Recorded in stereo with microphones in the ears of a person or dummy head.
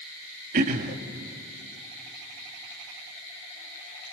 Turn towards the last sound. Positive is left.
turn(degrees=-45)  # may be behind; listen again after turning